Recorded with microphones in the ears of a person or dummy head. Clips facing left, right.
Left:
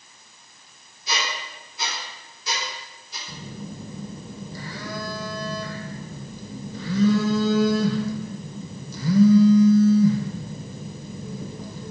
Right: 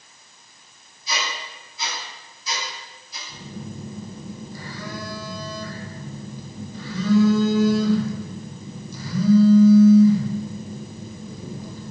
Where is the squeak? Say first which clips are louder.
Even; 45° left (ahead or behind), 3 m.